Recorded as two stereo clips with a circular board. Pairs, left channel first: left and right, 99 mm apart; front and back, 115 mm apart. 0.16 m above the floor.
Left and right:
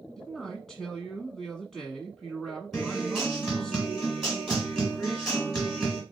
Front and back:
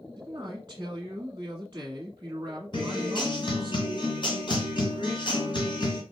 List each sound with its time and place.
0.2 s a man speaking: straight behind, 1.2 m
2.7 s a guitar: straight ahead, 1.9 m